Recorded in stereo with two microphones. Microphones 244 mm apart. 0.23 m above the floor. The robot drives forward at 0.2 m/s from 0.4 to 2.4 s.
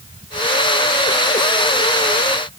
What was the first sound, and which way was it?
Only background noise.